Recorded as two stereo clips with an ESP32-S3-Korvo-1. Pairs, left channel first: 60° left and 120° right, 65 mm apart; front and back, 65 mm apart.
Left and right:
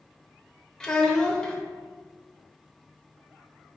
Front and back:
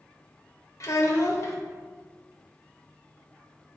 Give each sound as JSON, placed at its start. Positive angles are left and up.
{"t": 0.8, "sound": "a child speaking", "azimuth_deg": -15, "distance_m": 0.8}